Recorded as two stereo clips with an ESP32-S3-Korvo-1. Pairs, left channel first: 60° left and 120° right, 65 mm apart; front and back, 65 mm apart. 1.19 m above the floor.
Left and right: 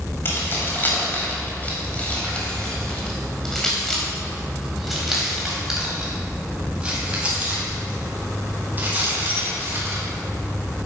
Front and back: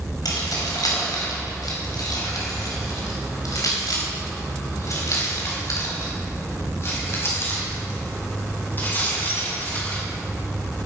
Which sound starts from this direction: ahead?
Keys jangling, at 0.2 s.